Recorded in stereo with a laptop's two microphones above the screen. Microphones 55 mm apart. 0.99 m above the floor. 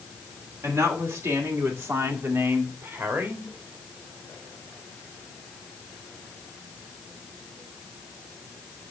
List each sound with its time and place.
0.6 s a woman speaking: 75° right (ahead or behind), 2.5 m; by 3.5 s 45° right (ahead or behind), 1.9 m